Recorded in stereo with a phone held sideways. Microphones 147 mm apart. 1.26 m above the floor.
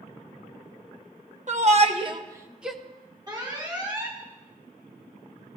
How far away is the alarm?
About 2 m.